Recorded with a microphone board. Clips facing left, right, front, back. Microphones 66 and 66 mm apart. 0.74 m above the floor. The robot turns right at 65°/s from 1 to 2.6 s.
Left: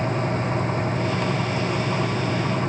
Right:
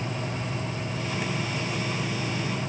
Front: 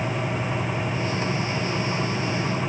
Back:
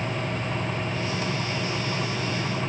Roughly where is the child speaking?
No child speaking in this recording.